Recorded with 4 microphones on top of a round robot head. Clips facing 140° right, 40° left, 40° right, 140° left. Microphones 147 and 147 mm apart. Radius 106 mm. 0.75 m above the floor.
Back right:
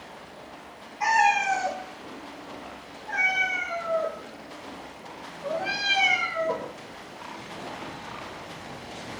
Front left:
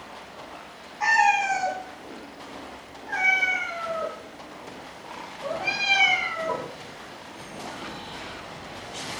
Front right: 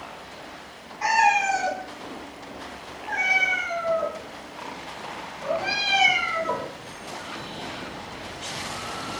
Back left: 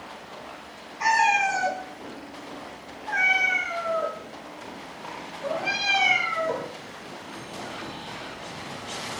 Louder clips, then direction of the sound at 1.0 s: Even, front right 1 dB; 125° left.